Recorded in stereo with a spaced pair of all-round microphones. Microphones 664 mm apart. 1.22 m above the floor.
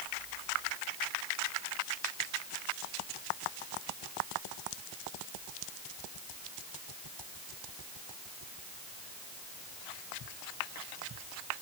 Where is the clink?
No clink in this recording.